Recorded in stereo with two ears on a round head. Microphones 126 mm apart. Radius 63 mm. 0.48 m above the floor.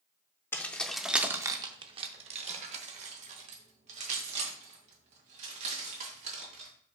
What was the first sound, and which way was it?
Keys jangling, 15° left (ahead or behind).